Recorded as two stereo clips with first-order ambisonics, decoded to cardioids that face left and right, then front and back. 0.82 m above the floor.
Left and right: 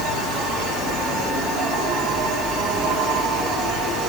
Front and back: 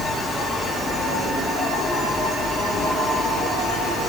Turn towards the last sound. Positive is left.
turn(degrees=-65)